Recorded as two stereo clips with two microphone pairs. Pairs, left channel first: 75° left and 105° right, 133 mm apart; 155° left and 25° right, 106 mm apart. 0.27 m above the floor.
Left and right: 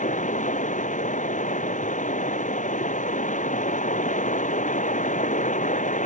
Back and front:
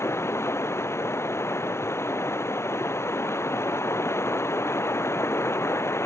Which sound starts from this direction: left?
Running water, at 0.0 s.